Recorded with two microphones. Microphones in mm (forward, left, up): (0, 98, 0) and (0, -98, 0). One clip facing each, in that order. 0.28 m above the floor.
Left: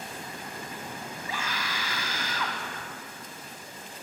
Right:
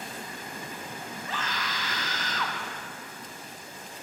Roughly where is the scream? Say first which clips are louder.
Even; centre.